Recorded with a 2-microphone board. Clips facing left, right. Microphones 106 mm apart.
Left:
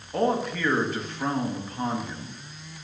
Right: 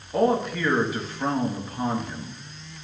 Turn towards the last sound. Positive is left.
turn(degrees=-5)  # may be behind; listen again after turning